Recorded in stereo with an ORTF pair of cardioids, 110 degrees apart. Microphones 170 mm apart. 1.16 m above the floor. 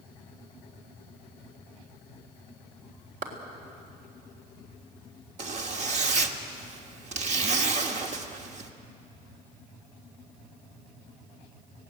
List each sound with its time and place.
3.2 s a clap: 60° right, 3.5 m
5.4 s a zipper: 45° right, 1.5 m